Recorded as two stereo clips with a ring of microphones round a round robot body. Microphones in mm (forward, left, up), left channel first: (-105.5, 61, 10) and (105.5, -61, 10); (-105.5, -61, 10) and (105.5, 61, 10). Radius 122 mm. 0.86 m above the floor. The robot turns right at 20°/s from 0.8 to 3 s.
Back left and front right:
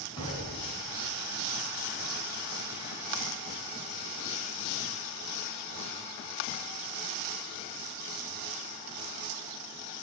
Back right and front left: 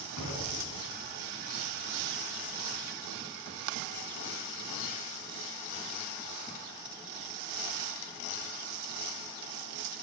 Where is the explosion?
140° right, 3 m; by 1.2 s 130° right, 3 m.